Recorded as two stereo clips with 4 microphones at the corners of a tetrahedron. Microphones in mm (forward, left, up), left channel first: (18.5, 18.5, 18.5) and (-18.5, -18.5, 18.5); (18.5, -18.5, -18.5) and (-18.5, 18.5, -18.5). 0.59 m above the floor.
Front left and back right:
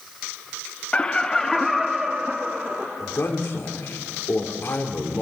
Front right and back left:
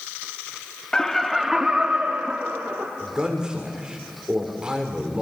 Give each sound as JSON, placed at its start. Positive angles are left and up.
{"t": 0.9, "sound": "laughter", "azimuth_deg": 15, "distance_m": 0.7}
{"t": 3.0, "sound": "a man speaking", "azimuth_deg": 65, "distance_m": 1.9}